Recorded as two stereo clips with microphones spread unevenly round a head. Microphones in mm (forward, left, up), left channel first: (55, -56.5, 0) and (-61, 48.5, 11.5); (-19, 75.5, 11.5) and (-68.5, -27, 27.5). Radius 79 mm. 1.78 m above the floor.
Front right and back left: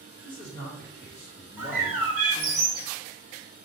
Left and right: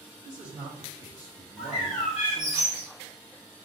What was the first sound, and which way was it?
A man speaking, 75° right.